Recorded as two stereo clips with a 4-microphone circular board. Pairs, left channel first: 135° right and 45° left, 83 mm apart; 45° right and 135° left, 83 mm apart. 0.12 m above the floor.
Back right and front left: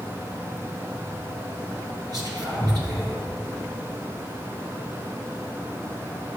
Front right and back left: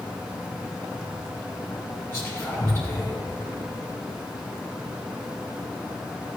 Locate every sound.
2.1 s whispering: 15° left, 2.5 m